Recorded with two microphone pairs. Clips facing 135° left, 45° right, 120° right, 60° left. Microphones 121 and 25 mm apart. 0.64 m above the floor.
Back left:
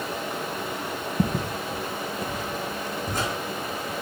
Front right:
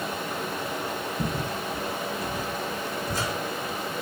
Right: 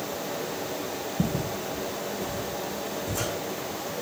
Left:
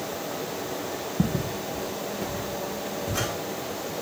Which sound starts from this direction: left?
Footsteps, at 1.2 s.